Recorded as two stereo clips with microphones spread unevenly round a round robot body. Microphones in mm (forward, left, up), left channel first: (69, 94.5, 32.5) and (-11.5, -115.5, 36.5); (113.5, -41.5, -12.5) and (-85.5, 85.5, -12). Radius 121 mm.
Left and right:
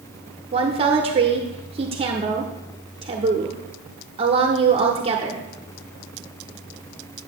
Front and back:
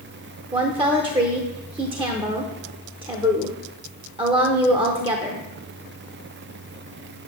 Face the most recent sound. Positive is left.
turn(degrees=-155)